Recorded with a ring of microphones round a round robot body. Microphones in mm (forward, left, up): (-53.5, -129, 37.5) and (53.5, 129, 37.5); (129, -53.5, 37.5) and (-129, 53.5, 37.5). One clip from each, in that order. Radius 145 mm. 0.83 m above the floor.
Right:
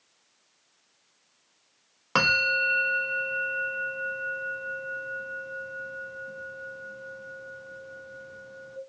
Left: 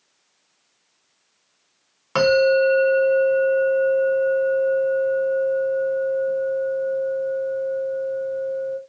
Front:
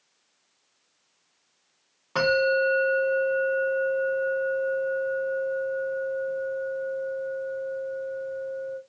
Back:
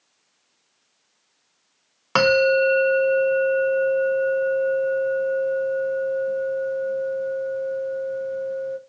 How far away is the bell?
About 0.6 m.